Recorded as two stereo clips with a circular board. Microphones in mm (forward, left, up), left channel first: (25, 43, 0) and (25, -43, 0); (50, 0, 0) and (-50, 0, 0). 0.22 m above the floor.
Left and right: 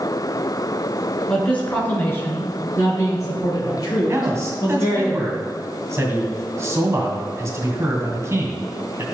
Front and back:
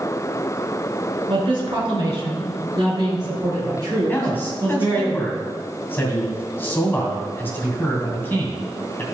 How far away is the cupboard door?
I don't hear a cupboard door.